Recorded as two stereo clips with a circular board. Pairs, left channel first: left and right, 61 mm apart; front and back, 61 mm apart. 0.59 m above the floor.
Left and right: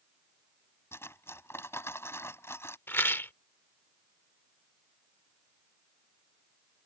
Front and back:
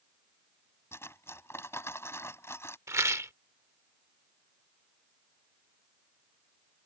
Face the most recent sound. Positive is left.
turn(degrees=140)